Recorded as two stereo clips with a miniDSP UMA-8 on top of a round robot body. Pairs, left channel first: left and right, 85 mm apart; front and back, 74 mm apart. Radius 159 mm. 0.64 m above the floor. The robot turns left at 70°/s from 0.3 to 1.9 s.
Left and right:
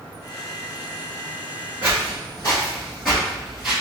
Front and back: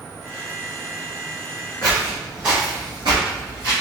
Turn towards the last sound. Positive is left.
turn(degrees=-165)